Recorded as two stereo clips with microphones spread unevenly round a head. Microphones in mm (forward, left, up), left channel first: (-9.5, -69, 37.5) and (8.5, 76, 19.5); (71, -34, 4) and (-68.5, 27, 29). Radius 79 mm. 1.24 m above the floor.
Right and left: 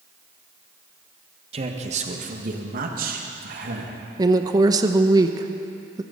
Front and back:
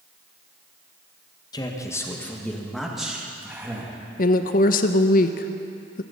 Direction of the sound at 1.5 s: 40° left.